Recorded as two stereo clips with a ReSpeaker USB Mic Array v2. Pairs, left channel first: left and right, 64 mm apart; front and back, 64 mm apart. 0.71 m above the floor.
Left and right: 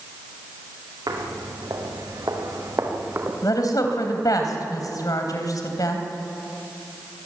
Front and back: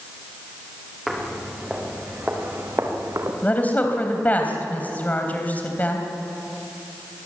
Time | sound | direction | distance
1.1 | footsteps | 90° right | 4 m
3.4 | a woman speaking | 65° left | 3.5 m